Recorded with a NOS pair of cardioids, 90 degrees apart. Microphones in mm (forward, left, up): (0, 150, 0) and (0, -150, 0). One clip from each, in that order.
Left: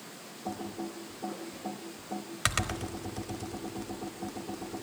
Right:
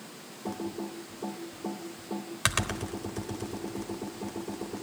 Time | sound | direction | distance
0.5 | typing on a keyboard | 15° right | 1.2 m